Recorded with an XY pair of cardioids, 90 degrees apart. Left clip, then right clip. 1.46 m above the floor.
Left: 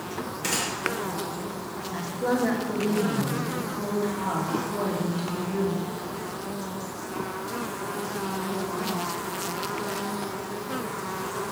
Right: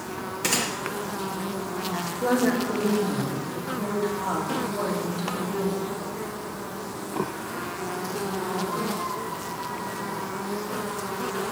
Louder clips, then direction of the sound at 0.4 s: Right 3 dB; 35° right.